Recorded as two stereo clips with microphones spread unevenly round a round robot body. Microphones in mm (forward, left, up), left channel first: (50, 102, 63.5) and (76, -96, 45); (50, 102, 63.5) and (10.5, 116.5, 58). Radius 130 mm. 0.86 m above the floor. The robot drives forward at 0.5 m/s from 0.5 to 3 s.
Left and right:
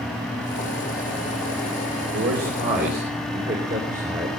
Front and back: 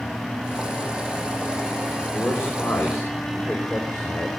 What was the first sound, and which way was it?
A man speaking, 125° right.